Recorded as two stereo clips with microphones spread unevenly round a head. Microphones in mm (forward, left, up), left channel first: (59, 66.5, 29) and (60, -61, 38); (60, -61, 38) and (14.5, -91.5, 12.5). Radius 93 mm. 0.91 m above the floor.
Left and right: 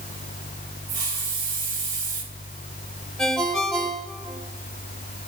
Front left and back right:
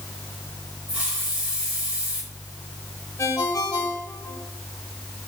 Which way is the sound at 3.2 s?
5° left.